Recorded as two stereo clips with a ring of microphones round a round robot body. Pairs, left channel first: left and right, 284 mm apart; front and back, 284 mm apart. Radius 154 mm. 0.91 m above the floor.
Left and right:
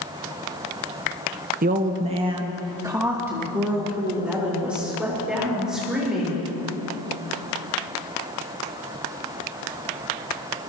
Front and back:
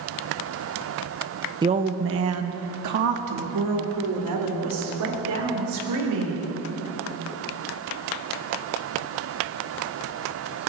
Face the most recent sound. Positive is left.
turn(degrees=180)